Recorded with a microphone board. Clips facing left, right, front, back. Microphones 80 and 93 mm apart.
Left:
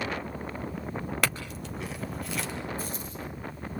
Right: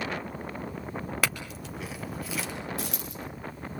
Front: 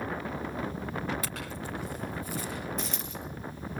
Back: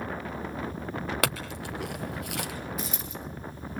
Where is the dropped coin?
95° right, 5.5 m.